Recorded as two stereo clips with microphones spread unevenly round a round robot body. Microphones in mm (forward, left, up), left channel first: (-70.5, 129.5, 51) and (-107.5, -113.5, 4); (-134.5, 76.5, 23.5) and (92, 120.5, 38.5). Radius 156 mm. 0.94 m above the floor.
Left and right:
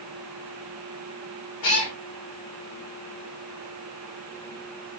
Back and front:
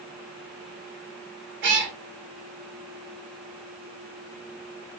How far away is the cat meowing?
About 1.1 m.